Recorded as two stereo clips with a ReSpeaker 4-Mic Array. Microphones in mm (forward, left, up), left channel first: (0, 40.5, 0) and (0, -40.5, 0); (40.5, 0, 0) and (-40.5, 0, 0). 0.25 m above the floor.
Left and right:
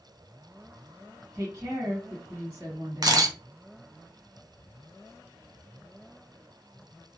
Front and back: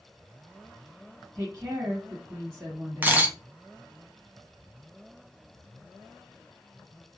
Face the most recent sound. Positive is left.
turn(degrees=-115)